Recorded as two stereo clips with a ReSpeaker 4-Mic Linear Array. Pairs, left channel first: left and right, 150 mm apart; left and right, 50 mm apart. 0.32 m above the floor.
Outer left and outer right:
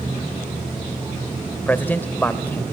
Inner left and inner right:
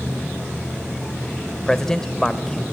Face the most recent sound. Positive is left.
turn(degrees=10)  # may be behind; listen again after turning